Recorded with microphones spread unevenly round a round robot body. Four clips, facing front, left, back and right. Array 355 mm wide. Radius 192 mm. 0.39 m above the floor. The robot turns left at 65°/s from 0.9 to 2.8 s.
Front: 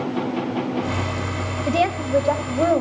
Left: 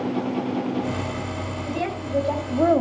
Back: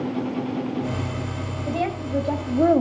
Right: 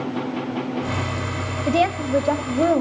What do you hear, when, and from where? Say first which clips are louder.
1.7 s a woman speaking: right 9 dB, front 6 dB; 80° right, 2.0 m; by 2.8 s 155° right, 2.0 m